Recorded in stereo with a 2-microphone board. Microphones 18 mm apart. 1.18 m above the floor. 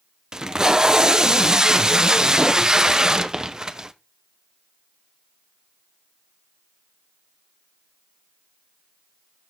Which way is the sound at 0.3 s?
35° right (ahead or behind).